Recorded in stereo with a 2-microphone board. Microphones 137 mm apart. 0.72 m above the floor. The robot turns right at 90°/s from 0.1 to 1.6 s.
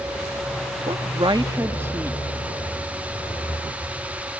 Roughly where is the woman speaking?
Right.